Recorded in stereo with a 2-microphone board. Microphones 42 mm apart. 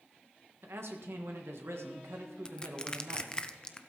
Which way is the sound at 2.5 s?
20° left (ahead or behind).